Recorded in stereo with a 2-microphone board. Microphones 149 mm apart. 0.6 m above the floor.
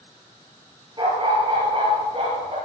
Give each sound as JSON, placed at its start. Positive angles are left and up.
{"t": 1.0, "sound": "a dog barking", "side_deg": -35, "distance_m": 6.0}